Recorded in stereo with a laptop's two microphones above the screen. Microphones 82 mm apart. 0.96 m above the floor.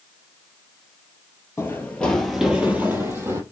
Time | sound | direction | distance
1.6 | running footsteps | 30° left (ahead or behind) | 1.1 m